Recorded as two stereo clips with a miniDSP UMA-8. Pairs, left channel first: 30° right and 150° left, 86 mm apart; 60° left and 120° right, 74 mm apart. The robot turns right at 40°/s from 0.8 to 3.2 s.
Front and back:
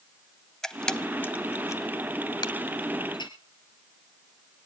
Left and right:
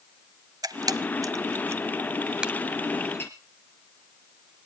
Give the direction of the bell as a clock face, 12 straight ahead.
I don't hear a bell.